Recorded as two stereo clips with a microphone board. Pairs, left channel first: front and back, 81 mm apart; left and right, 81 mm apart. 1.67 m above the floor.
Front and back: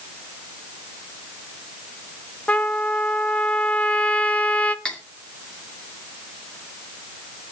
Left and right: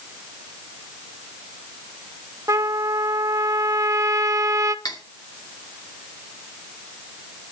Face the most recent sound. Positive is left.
turn(degrees=75)